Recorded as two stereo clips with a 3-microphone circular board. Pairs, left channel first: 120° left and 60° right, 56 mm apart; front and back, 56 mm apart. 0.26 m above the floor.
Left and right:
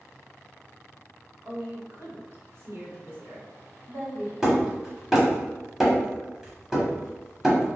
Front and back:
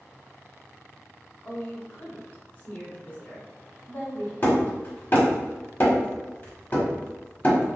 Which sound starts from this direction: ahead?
Hammering, at 4.4 s.